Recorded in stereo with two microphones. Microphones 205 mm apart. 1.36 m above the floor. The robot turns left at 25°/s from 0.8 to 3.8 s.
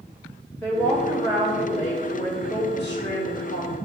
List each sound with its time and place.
0.6 s a woman speaking: 170° left, 2 m; by 3.8 s 100° left, 2 m